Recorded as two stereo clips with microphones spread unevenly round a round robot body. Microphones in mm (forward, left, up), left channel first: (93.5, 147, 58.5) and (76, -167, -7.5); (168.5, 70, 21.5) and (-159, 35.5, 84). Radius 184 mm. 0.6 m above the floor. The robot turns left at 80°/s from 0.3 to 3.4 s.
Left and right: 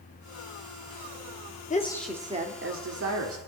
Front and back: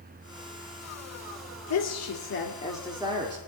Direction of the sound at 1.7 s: 20° left.